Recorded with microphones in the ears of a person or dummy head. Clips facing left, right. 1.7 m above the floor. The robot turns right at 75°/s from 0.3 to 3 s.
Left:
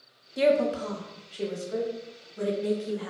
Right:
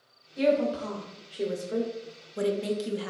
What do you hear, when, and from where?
0.4 s a woman speaking: 60° left (ahead or behind), 0.5 m; by 3.1 s 45° right (ahead or behind), 0.5 m